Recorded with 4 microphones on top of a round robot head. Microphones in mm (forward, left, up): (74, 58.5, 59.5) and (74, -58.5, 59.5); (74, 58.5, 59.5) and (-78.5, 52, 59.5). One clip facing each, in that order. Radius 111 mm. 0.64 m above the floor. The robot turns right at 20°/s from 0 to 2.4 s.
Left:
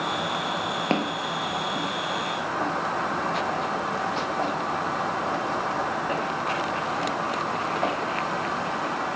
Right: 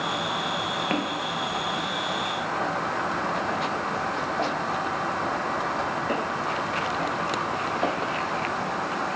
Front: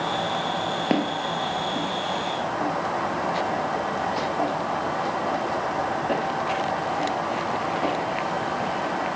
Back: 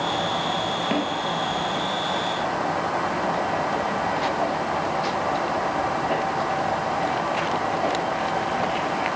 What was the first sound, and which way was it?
Footsteps, 40° left.